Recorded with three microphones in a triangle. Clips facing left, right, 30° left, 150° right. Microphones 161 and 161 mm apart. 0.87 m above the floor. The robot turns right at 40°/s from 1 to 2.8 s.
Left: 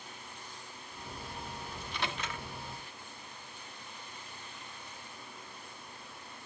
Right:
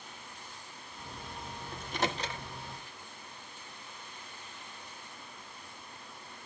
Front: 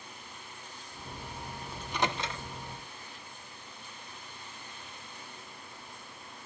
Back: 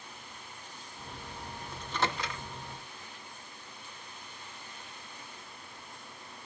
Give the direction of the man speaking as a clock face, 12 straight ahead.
No man speaking in this recording.